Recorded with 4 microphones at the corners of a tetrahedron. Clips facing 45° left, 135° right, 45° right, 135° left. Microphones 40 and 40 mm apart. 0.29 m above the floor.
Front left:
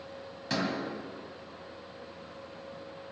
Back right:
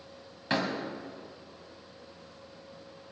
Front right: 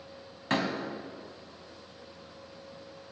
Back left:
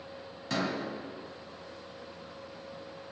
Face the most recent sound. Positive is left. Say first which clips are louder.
# back right 2 dB, front right 3 dB
turn(degrees=-80)